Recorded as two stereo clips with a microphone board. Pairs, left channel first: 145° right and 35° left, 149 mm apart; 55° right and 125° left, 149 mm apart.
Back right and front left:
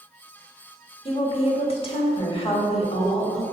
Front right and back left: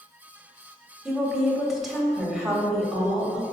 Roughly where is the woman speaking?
Behind right.